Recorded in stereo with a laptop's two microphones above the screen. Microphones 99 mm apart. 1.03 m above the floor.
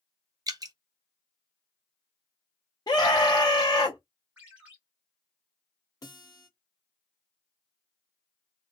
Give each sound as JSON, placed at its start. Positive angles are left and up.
{"t": 0.5, "sound": "dripping", "side_deg": -40, "distance_m": 0.5}
{"t": 2.9, "sound": "a scream", "side_deg": 45, "distance_m": 0.7}
{"t": 4.4, "sound": "a ringtone", "side_deg": -15, "distance_m": 1.2}
{"t": 6.0, "sound": "a guitar", "side_deg": 40, "distance_m": 0.8}